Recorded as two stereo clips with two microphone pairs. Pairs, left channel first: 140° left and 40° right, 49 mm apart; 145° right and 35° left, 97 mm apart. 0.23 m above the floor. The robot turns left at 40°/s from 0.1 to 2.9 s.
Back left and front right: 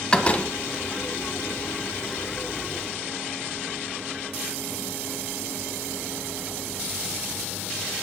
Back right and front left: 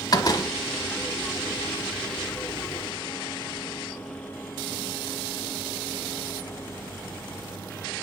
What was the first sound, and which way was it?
A door slam, 160° right.